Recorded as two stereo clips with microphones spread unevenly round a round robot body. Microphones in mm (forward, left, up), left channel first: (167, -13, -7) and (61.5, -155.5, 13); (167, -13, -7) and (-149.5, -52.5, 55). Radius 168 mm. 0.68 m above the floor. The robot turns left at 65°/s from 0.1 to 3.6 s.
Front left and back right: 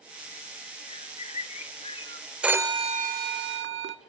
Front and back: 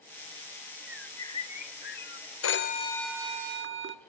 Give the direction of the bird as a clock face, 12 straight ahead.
9 o'clock.